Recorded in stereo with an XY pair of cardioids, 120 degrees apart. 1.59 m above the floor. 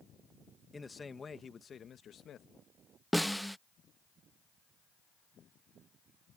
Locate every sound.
0.7 s a man speaking: 15° left; by 2.5 s 55° left
3.1 s a snare drum: straight ahead